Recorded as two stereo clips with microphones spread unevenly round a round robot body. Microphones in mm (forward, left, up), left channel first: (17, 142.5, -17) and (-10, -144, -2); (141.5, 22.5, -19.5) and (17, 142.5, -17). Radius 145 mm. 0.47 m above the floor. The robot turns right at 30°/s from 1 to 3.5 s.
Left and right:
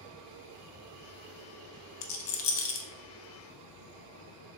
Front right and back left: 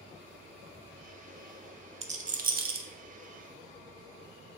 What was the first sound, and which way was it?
A rattle, 75° left.